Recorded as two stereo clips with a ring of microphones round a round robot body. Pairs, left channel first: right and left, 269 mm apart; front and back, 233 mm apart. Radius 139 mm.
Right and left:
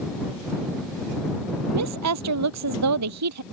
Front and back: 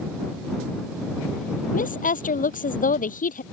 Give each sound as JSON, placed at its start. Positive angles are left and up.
{"t": 1.7, "sound": "a woman speaking", "azimuth_deg": 55}